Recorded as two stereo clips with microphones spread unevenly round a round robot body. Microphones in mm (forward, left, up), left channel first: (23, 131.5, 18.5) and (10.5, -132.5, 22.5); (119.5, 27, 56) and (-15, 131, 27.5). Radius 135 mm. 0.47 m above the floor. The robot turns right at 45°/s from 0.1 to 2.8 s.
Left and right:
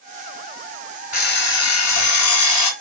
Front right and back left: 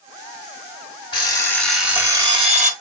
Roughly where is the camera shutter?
I don't hear a camera shutter.